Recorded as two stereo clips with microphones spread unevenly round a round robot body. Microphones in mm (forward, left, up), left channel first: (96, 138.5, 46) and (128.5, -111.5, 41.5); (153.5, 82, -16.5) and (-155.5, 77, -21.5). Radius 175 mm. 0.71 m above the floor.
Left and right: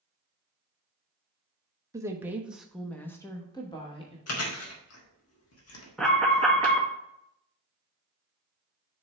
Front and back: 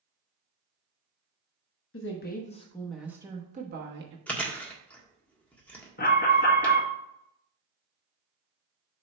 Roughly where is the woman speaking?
Ahead.